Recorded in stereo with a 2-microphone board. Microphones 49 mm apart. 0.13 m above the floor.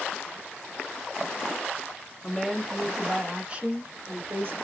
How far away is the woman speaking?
About 1.1 m.